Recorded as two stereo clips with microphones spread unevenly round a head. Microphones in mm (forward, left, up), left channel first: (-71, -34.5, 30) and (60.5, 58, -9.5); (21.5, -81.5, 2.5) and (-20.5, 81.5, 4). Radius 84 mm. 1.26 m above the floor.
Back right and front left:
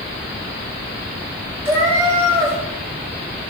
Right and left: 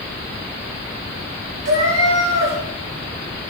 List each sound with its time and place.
1.6 s a cat meowing: 115° left, 4.5 m